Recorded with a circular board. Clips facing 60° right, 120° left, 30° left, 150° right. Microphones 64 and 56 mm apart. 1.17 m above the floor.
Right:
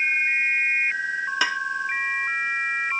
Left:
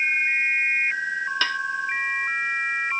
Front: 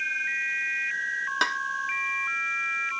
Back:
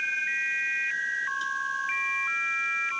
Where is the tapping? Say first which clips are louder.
Right 2 dB, front 5 dB; 15° left.